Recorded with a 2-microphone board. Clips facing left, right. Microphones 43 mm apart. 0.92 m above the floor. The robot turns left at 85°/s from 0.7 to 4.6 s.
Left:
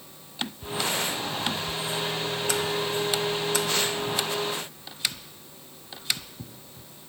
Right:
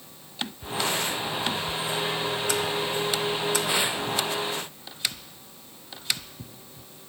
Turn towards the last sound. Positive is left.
No sound to turn to.